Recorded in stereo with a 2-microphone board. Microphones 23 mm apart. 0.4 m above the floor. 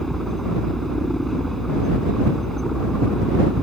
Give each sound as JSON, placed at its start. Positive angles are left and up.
{"t": 0.0, "sound": "a helicopter", "side_deg": 15}